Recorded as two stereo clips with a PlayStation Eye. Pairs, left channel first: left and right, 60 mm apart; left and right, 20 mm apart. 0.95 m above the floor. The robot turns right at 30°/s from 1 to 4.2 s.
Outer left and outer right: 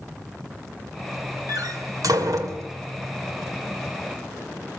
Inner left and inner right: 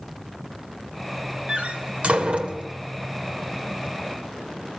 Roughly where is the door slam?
Right.